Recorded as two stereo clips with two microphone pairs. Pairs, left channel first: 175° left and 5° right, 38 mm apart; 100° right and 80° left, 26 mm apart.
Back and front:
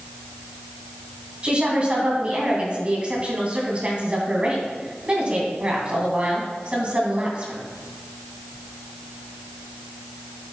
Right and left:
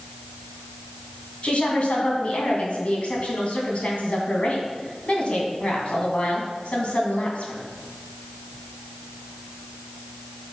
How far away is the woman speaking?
About 2 m.